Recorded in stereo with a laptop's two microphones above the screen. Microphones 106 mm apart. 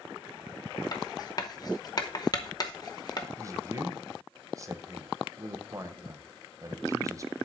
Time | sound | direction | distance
0.9 | writing | 35° left (ahead or behind) | 0.7 m
3.4 | a man speaking | 30° right (ahead or behind) | 0.7 m